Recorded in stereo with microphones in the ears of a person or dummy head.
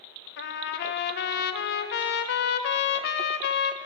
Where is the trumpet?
55° left (ahead or behind), 0.6 m.